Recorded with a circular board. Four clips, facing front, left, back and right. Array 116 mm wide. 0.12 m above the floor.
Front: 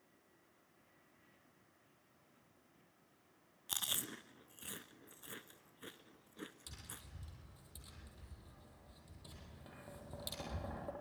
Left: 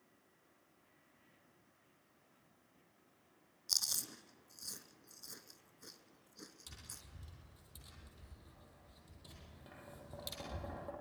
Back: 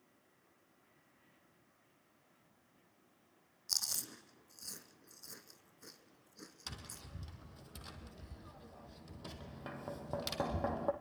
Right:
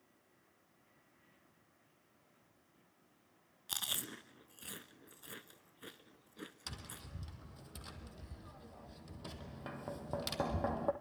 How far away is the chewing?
About 0.9 m.